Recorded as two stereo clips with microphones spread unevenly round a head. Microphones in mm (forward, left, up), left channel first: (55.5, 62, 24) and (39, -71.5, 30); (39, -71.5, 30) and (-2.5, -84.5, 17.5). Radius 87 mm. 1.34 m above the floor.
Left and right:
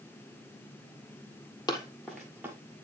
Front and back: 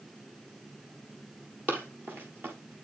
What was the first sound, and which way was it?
Running footsteps, 130° left.